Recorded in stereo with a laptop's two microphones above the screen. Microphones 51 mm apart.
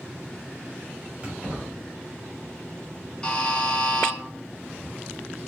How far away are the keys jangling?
About 1.4 m.